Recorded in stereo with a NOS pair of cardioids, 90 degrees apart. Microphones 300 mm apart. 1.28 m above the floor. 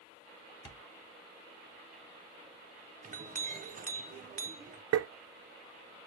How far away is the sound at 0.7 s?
About 1.4 m.